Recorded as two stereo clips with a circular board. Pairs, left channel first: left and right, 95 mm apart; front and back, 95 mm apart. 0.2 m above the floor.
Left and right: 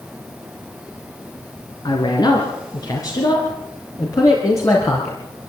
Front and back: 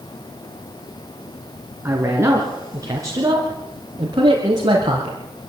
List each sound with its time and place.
1.9 s a man speaking: 120° left, 2.5 m; by 5.2 s 150° left, 3.5 m